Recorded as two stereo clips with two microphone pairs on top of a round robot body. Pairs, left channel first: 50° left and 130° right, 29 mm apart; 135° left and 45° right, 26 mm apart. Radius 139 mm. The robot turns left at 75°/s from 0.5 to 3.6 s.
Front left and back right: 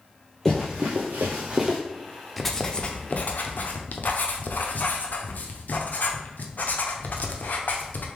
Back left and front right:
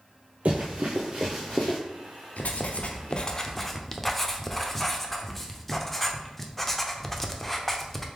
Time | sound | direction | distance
0.5 | running footsteps | 20° right | 0.8 m
2.4 | writing | 140° left | 0.8 m